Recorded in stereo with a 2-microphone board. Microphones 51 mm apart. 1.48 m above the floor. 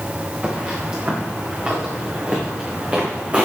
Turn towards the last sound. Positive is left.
turn(degrees=-25)  # may be behind; listen again after turning